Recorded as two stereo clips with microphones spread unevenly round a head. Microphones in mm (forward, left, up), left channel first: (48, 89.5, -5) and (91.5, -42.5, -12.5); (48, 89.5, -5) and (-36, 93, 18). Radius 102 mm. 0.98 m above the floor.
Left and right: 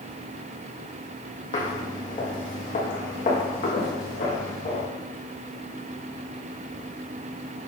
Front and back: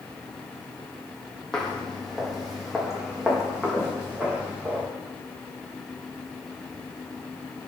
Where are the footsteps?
85° left, 2.5 m; by 4.8 s 105° left, 4.5 m.